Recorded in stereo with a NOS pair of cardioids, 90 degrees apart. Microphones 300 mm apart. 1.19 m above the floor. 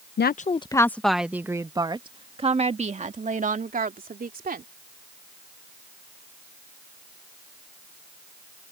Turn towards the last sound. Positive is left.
turn(degrees=-30)